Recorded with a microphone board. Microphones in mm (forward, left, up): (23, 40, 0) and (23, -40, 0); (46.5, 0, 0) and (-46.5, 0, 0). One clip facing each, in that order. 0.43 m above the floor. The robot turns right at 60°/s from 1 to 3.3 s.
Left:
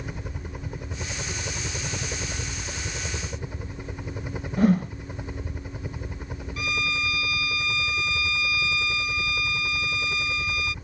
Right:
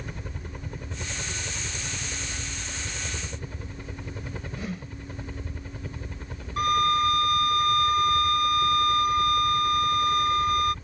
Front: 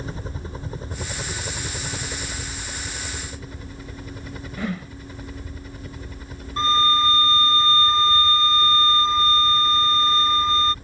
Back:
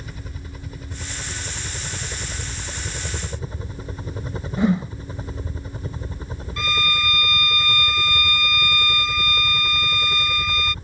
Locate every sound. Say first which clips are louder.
0.0 s a helicopter: left 2 dB, front 5 dB; 15° left; by 10.8 s 155° left
4.6 s a whoosh: left 19 dB, back 9 dB; 115° left
6.6 s a violin: right 8 dB, front 6 dB; 55° right